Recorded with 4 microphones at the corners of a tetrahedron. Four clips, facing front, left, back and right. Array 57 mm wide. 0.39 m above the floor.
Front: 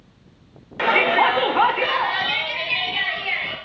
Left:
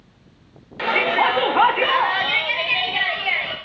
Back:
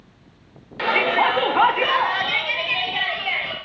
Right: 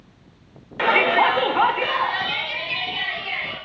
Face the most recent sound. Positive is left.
turn(degrees=120)